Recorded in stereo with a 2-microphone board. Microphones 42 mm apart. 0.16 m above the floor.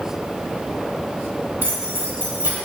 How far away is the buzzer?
No buzzer in this recording.